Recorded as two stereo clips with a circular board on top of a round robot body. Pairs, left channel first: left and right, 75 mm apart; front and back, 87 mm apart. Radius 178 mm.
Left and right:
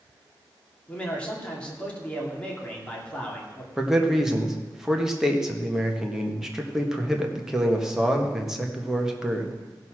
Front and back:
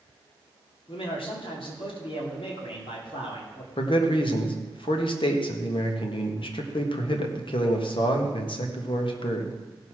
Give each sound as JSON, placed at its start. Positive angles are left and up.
{"t": 0.9, "sound": "a man speaking", "azimuth_deg": 15, "distance_m": 2.5}
{"t": 3.8, "sound": "a man speaking", "azimuth_deg": -5, "distance_m": 1.8}